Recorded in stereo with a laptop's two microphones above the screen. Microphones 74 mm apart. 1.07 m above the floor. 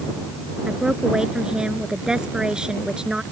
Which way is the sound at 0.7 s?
10° right (ahead or behind).